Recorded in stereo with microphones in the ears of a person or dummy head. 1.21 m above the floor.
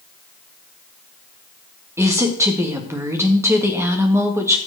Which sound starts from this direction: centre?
A woman speaking, at 2.0 s.